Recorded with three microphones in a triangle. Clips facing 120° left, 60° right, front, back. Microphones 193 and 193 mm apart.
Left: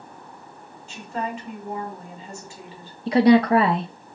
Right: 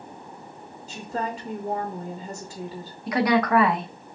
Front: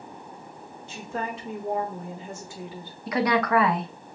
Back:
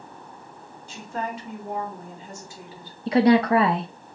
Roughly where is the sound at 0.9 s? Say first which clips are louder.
Even, back 1 dB; ahead right.